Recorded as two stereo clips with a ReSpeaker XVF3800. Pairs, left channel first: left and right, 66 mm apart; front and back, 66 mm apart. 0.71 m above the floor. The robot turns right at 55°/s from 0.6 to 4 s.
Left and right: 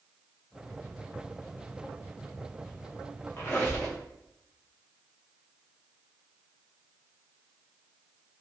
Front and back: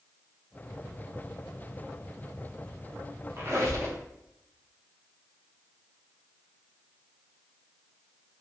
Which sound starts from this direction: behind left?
A squeak, at 3.4 s.